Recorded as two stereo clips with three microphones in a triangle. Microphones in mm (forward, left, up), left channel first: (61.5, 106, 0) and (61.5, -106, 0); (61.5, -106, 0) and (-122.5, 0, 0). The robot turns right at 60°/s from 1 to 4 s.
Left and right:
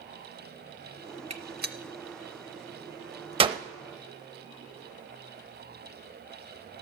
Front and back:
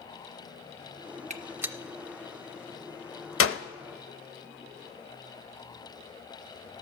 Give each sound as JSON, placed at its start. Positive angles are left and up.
{"t": 1.3, "sound": "a gunshot", "azimuth_deg": -150, "distance_m": 0.5}